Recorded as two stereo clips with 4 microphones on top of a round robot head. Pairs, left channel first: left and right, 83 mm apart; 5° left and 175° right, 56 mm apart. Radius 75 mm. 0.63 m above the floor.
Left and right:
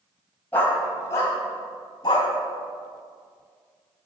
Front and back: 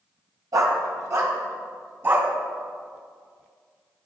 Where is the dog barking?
165° left, 1.4 m; by 2.3 s 135° left, 2 m.